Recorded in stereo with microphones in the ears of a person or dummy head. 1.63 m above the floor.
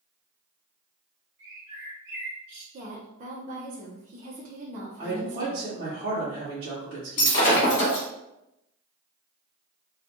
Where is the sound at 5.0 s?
45° right (ahead or behind), 1.0 m.